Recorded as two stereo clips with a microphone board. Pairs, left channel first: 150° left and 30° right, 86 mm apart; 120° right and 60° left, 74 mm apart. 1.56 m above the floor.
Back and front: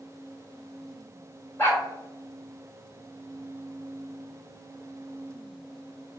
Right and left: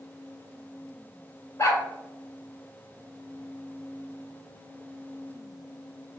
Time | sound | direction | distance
1.6 | a dog barking | 155° right | 1.6 m